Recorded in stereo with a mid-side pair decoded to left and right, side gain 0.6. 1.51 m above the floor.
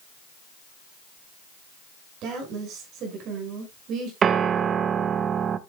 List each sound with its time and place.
2.2 s a woman speaking: 60° right, 6 m
4.2 s a piano: 40° right, 0.9 m